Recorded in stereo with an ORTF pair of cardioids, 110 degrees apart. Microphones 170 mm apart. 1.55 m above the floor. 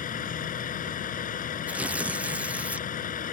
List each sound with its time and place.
0.0 s a vehicle: 50° left
1.7 s tearing paper: 10° right